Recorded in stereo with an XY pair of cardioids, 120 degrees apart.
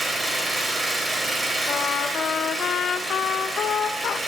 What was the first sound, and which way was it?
An engine running, 15° right.